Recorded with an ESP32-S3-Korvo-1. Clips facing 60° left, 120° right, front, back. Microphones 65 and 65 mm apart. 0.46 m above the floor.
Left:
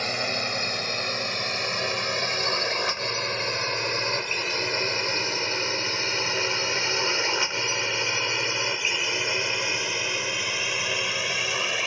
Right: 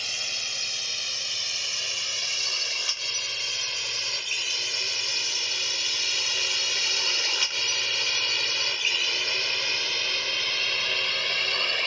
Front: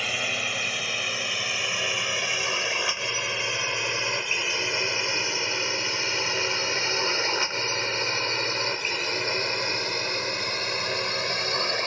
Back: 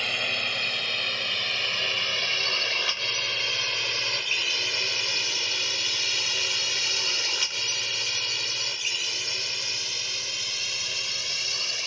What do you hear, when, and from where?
0.0 s a drone: 85° left; by 11.9 s 20° right